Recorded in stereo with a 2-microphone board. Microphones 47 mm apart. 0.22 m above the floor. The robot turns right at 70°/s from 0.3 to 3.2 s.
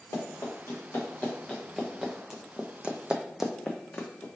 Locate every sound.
0.1 s running footsteps: 85° left, 2 m; by 4.2 s 25° left (ahead or behind), 0.9 m